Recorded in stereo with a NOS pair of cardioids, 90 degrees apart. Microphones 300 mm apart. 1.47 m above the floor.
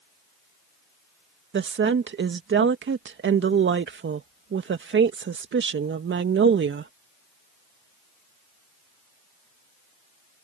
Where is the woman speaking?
40° right.